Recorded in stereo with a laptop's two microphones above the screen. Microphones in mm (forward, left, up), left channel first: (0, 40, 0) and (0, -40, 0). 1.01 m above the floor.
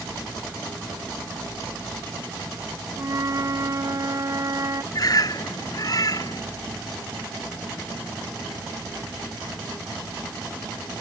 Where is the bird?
50° left (ahead or behind).